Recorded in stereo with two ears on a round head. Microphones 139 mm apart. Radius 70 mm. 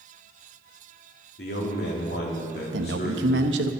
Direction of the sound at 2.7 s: 85° right.